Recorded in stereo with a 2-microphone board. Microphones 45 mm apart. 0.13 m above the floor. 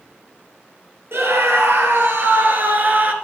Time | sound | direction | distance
1.1 | a scream | 65° right (ahead or behind) | 3.5 m